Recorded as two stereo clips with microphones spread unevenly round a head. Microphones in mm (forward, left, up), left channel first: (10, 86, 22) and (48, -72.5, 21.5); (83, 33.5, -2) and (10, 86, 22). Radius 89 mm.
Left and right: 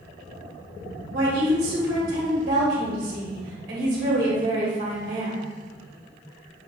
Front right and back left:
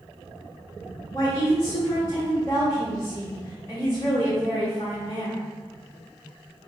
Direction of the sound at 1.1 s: 115° right.